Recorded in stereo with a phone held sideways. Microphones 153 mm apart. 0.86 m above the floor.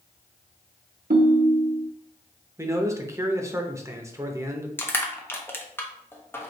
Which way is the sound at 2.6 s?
20° right (ahead or behind).